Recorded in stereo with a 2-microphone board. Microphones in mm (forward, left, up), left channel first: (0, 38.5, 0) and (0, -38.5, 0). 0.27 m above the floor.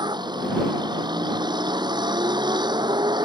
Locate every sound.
0.0 s a vehicle: 70° right (ahead or behind)